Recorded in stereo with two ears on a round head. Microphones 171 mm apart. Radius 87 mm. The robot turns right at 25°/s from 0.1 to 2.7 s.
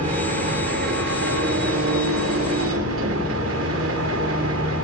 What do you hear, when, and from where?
0.0 s an engine running: 140° right, 2 m; by 4.8 s 75° right, 2 m